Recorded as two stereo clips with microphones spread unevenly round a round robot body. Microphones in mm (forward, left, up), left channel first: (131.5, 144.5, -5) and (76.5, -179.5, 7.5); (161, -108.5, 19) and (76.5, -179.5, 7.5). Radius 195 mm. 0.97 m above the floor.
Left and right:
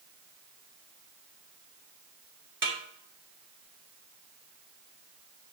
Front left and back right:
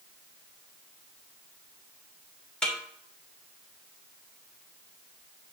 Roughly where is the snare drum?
Ahead right.